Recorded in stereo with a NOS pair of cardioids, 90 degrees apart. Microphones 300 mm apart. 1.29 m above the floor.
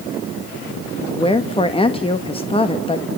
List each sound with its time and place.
1.1 s a woman speaking: 20° left, 1.4 m